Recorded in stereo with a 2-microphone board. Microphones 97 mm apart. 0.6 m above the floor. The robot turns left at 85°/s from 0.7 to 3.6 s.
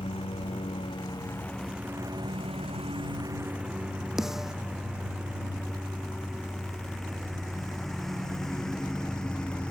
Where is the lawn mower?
80° left; by 9.7 s 10° left (ahead or behind).